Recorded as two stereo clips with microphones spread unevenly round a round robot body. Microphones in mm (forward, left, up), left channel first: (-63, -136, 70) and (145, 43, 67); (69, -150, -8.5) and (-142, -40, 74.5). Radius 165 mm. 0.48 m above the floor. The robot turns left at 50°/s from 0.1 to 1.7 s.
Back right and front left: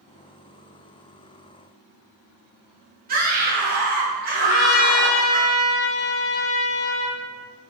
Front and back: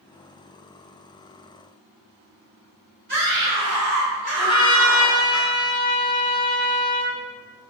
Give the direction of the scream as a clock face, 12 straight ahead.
9 o'clock.